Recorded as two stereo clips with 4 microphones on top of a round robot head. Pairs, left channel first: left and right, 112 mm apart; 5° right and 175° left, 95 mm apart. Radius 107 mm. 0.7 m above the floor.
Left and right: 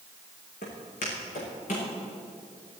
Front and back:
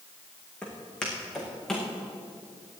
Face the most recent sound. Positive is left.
turn(degrees=80)